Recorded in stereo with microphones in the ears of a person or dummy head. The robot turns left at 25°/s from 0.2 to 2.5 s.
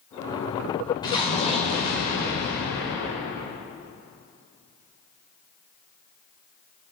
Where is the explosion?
155° left, 4 m; by 3.2 s 120° left, 4 m.